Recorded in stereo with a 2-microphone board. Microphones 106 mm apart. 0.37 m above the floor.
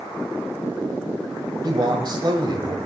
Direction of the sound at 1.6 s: 45° right (ahead or behind).